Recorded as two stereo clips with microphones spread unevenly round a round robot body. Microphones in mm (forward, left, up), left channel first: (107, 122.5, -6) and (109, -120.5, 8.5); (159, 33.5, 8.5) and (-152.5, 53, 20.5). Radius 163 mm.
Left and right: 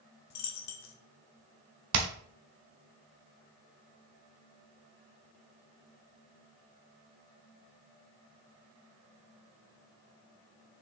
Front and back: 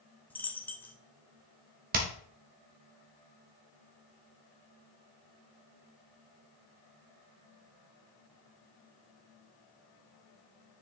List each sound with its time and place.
0.3 s a dropped coin: 80° left, 1.0 m
1.9 s hammering: 120° right, 1.1 m